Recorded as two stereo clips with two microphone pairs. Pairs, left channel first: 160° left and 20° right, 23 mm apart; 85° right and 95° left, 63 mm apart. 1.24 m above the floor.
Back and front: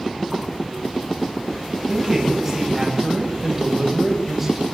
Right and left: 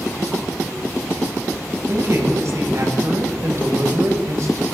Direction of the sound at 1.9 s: 55° left.